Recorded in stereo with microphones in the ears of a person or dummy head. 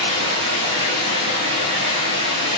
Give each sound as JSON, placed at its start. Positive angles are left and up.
{"t": 0.0, "sound": "running water", "side_deg": -35, "distance_m": 5.0}